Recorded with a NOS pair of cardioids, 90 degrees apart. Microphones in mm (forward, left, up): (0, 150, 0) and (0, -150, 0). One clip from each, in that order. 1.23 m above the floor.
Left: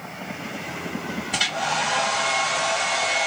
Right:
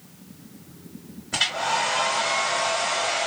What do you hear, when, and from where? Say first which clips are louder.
1.3 s a hair dryer: even; 10° left, 1.5 m